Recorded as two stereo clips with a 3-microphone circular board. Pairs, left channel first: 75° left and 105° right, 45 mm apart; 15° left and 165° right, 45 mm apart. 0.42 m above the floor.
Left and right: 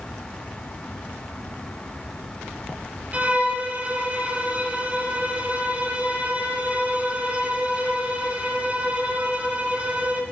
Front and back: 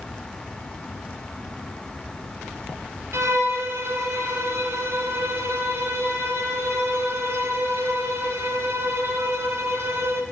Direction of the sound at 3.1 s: 165° right.